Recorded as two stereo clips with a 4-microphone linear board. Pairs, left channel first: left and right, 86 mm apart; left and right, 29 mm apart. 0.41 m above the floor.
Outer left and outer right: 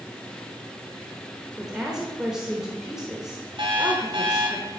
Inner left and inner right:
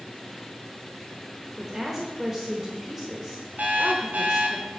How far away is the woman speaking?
About 1.0 m.